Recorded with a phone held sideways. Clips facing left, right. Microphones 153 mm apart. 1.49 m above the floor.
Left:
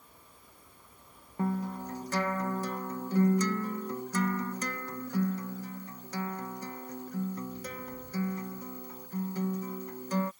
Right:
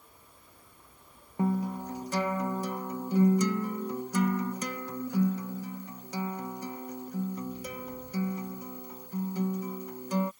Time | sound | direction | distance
1.4 | a guitar | 15° right (ahead or behind) | ?